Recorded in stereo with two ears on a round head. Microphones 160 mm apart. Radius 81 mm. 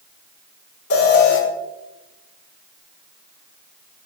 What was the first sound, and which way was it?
An alarm, 75° left (ahead or behind).